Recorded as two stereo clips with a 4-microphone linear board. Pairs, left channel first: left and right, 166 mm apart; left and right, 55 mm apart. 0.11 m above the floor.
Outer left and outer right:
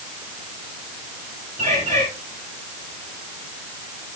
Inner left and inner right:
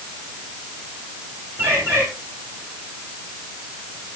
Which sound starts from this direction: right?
A bird, at 1.6 s.